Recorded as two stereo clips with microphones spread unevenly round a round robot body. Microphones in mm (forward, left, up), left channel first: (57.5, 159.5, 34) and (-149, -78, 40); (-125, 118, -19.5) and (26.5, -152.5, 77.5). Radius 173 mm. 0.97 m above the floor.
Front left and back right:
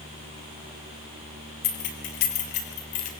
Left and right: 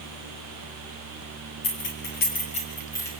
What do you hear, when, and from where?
1.6 s keys jangling: 65° left, 3.5 m; by 3.1 s 35° left, 3.5 m